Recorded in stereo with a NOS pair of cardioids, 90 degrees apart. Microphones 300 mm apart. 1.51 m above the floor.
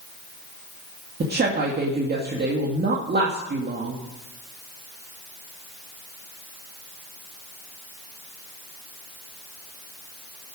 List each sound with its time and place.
1.2 s a woman speaking: 35° right, 2.5 m